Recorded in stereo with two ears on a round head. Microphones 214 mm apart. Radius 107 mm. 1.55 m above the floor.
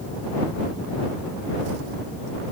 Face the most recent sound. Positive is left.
No sound to turn to.